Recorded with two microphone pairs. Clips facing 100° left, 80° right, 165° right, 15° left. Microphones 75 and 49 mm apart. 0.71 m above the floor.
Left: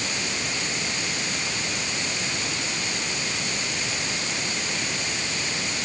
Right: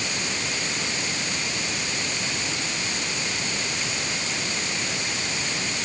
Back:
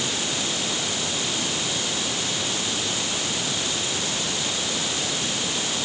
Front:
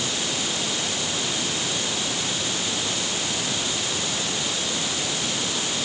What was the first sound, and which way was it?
Only background noise.